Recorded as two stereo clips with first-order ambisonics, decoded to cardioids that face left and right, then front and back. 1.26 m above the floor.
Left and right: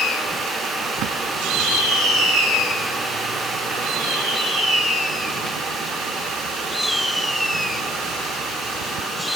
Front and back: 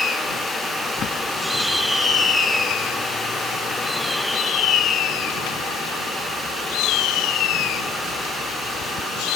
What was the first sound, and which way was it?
A bird, 55° right.